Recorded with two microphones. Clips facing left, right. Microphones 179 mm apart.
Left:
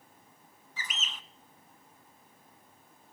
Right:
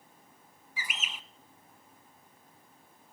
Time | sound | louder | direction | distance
0.8 | a bird | right 1 dB | 10° right (ahead or behind) | 0.8 m